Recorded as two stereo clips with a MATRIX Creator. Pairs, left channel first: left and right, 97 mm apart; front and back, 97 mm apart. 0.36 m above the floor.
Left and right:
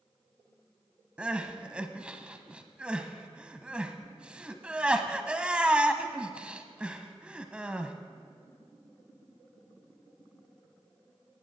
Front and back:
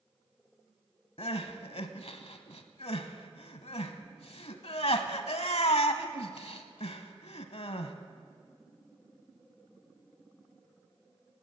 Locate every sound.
1.2 s crying: 10° right, 0.9 m